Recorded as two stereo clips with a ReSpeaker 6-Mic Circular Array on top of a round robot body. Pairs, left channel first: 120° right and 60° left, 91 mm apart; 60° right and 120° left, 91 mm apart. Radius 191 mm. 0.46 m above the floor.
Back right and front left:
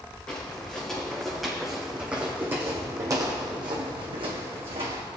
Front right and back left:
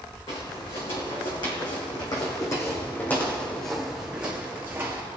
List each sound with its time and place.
0.3 s footsteps: 40° right, 3 m; by 5.0 s 55° left, 2 m